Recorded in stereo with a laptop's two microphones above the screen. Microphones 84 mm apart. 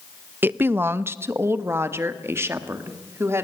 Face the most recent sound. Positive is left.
turn(degrees=-30)  # may be behind; listen again after turning